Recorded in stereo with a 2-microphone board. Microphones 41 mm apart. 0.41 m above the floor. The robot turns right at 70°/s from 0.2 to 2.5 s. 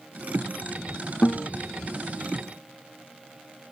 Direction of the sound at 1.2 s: 45° left (ahead or behind).